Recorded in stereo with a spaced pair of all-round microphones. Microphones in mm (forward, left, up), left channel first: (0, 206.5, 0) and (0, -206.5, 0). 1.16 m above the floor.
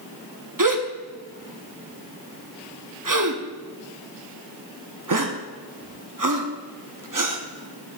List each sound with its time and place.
0.6 s a gasp: 50° right (ahead or behind), 0.8 m